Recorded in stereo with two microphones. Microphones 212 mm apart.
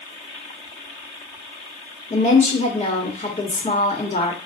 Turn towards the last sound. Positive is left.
turn(degrees=35)  # may be behind; listen again after turning